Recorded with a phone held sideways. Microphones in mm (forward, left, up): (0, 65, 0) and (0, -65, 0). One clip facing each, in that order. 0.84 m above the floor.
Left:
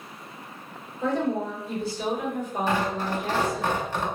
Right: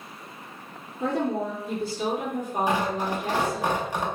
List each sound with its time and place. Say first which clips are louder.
1.0 s a woman speaking: even; 55° right (ahead or behind), 1.8 m
2.7 s tearing paper: even; 15° right (ahead or behind), 0.7 m